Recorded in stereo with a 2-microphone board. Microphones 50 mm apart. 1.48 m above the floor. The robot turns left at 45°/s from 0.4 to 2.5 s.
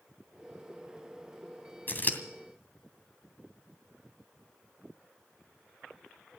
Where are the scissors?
45° left (ahead or behind), 2.5 m; by 2.2 s 35° left (ahead or behind), 2.5 m.